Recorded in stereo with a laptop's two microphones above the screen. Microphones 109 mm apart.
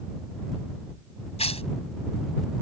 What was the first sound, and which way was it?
Tearing paper, 75° left (ahead or behind).